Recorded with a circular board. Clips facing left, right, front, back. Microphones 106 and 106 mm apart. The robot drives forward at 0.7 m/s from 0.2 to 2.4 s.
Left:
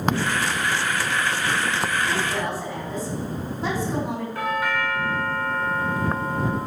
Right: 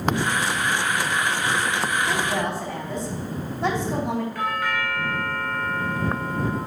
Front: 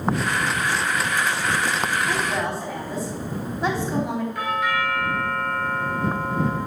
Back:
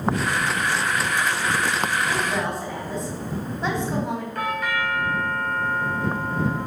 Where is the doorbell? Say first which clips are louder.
Left 1 dB, front 1 dB; 150° left, 2.5 m.